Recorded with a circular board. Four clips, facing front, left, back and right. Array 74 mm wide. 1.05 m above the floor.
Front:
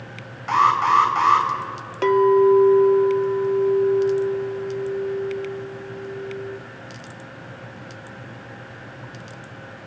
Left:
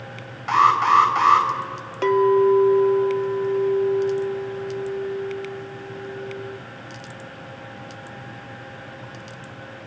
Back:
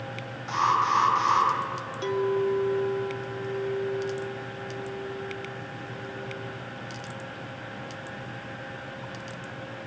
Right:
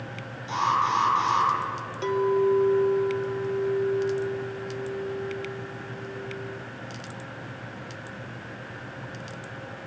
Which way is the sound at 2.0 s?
35° left.